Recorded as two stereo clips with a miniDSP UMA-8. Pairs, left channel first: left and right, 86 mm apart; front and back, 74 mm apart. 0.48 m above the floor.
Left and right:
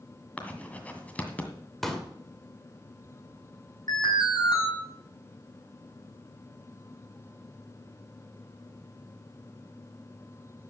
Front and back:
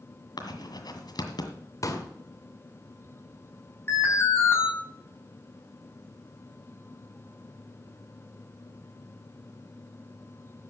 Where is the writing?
20° left, 1.9 m.